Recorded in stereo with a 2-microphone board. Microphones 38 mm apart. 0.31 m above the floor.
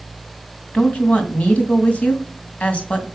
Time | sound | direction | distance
0.7 | a woman speaking | 35° left (ahead or behind) | 2.0 m